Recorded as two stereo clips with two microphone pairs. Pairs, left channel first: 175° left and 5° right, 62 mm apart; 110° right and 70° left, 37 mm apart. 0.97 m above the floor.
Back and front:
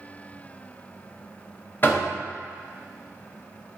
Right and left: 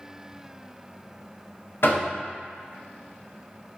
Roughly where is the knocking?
Behind right.